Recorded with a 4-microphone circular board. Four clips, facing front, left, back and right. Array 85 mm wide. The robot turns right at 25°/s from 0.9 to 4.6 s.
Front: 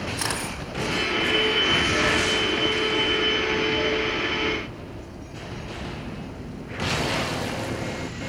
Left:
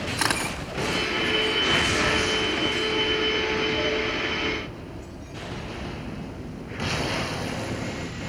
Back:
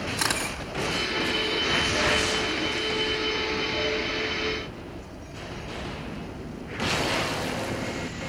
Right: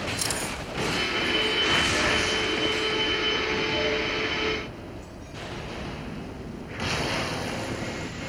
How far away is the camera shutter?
About 2.5 m.